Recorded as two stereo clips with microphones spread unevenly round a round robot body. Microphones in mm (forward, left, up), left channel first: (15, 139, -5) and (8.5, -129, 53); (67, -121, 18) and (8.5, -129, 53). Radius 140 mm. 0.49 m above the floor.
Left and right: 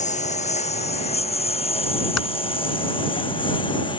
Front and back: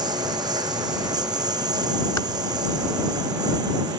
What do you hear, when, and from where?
0.0 s a lawn mower: 155° left; by 4.0 s 165° left
2.2 s typing on a keyboard: 60° left